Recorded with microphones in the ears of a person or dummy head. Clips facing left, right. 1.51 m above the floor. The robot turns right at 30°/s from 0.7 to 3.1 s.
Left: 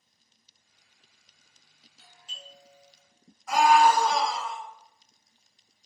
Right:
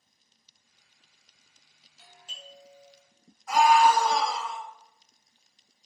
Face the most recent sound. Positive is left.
turn(degrees=80)